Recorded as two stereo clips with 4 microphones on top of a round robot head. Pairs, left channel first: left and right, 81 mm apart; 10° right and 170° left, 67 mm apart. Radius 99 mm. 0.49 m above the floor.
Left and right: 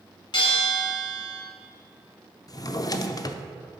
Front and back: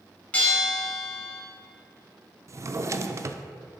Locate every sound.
0.3 s a bell: 65° left, 3 m
2.5 s a drawer: 130° left, 0.5 m